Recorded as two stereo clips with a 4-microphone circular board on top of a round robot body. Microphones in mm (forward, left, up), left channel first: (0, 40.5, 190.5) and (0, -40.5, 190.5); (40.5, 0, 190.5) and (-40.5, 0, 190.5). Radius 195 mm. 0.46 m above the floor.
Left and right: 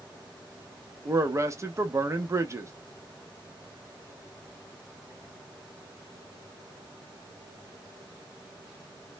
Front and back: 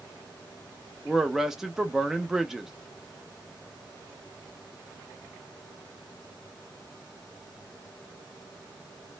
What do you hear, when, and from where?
1.1 s a man speaking: 100° right, 0.8 m